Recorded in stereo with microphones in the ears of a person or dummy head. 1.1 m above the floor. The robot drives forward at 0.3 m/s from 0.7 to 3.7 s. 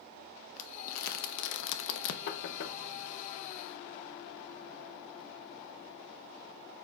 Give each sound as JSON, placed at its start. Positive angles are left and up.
{"t": 0.6, "sound": "crumpling", "side_deg": 50, "distance_m": 0.6}
{"t": 2.3, "sound": "knocking", "side_deg": 65, "distance_m": 0.5}